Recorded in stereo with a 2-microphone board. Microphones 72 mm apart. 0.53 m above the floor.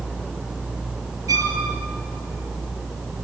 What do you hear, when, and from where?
1.3 s a violin: 50° right (ahead or behind), 6 m